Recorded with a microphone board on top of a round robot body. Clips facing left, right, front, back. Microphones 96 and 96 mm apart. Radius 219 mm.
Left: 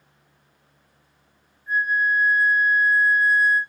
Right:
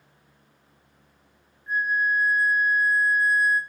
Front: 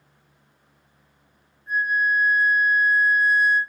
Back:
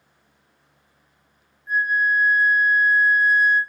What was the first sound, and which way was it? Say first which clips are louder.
A flute: left 2 dB, back 1 dB; 40° right.